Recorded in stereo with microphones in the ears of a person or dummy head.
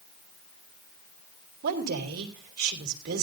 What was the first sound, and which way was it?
A woman speaking, 55° right (ahead or behind).